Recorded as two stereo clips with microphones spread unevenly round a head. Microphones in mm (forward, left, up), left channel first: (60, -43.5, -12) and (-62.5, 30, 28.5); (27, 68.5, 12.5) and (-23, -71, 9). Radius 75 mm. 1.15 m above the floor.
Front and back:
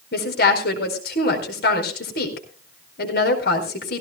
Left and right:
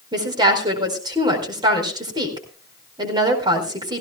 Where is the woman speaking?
45° right, 4.5 m.